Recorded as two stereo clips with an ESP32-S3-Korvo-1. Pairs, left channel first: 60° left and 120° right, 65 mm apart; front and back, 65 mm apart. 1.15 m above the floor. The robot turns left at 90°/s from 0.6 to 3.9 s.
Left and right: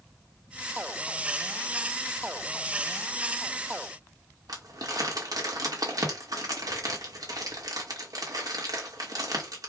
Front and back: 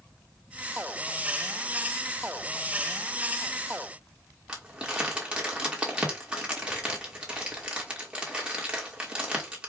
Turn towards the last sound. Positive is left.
turn(degrees=-105)